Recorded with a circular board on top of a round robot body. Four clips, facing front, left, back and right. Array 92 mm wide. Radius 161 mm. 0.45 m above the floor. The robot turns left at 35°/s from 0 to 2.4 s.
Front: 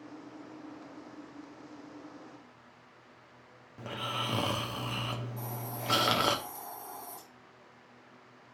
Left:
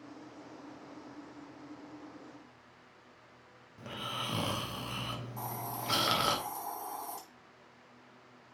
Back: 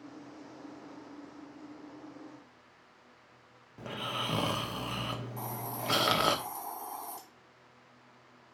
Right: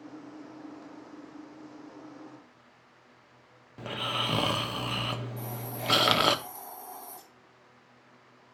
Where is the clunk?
I don't hear a clunk.